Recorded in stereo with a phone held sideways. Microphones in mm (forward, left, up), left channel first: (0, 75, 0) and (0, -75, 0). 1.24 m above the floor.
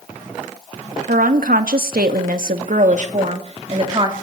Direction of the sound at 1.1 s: 70° right (ahead or behind).